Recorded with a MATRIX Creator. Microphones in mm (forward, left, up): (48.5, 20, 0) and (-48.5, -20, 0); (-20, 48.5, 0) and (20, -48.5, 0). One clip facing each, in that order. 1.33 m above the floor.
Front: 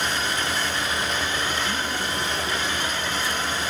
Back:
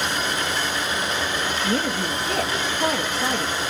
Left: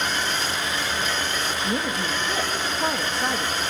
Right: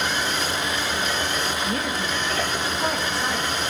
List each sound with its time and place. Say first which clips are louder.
1.6 s a woman speaking: back 4 dB, even; 175° right, 2 m